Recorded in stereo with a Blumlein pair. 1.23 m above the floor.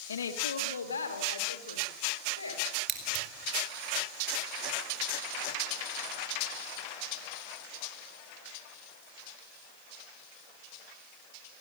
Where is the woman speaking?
70° left, 2 m; by 2.8 s 80° left, 6.5 m.